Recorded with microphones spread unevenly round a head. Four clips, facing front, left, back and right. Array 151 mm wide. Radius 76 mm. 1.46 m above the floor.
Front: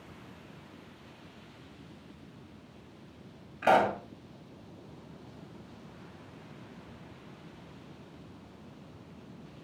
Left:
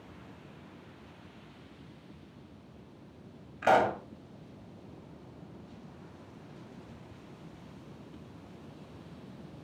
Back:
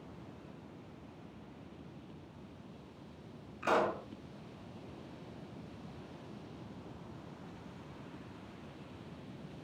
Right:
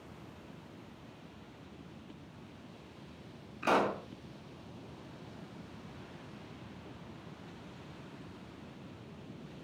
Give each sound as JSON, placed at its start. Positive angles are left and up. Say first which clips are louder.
{"t": 3.6, "sound": "a pop", "louder": "left 5 dB, front 7 dB", "azimuth_deg": 45, "distance_m": 1.8}